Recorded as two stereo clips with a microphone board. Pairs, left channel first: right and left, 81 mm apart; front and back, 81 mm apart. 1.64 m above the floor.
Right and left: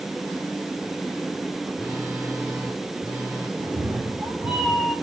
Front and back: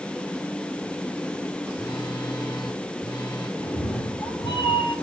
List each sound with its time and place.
1.8 s a phone buzzing: 35° left, 5 m
3.6 s a cat meowing: 20° left, 5.5 m